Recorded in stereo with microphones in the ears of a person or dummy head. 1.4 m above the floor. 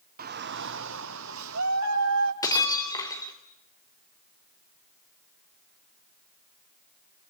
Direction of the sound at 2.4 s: 20° left (ahead or behind).